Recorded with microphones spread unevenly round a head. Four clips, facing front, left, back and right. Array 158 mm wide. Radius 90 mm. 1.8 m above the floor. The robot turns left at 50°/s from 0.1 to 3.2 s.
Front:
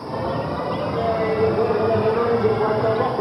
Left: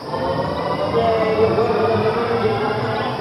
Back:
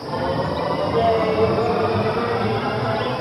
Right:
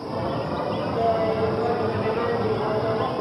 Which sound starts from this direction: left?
Laughter, at 0.9 s.